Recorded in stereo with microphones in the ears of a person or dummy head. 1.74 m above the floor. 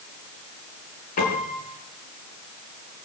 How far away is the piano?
About 5.5 m.